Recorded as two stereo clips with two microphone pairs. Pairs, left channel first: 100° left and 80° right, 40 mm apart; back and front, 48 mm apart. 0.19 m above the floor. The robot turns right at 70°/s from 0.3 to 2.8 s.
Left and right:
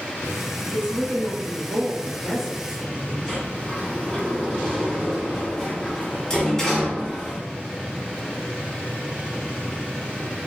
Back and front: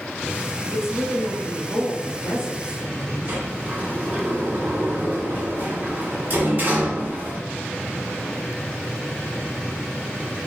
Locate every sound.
0.7 s a woman speaking: 75° left, 1.4 m; by 3.4 s 140° right, 1.4 m
3.3 s a sliding door: 30° left, 1.2 m